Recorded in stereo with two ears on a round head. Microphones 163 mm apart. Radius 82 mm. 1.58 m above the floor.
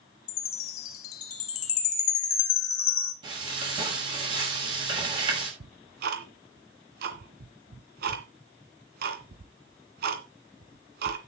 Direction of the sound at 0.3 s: 85° left.